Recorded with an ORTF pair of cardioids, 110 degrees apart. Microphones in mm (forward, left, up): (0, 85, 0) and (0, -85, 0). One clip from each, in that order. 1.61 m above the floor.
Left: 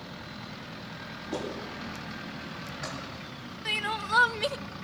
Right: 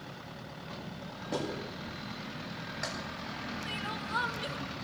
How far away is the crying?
About 0.8 m.